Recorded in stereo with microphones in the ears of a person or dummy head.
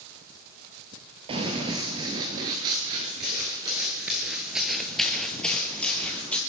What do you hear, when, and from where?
1.3 s running footsteps: 20° right (ahead or behind), 1.7 m; by 6.4 s 10° left (ahead or behind), 2 m